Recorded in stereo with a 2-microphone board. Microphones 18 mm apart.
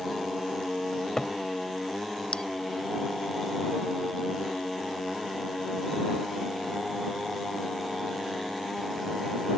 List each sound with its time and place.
0.9 s a cupboard door: 40° left (ahead or behind)
2.3 s a bell: 55° left (ahead or behind)